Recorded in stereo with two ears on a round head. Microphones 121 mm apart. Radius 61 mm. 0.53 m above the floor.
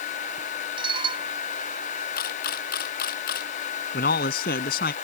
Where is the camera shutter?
80° left.